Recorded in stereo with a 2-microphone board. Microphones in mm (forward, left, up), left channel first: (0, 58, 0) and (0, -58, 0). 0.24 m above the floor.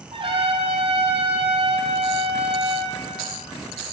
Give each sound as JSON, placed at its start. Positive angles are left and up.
{"t": 0.1, "sound": "a trumpet", "side_deg": -55, "distance_m": 5.0}